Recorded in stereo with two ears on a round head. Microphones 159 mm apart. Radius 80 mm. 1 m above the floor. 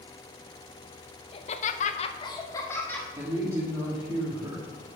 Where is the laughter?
30° left (ahead or behind), 0.9 m; by 3.1 s 10° left (ahead or behind), 1.9 m.